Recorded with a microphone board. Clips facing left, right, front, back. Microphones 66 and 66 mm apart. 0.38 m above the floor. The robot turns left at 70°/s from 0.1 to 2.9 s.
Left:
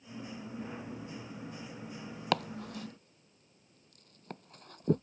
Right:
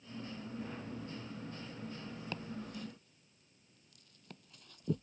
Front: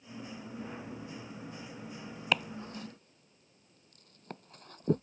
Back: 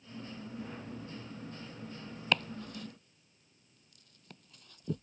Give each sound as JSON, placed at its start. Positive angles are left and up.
{"t": 2.3, "sound": "chopping", "azimuth_deg": 85}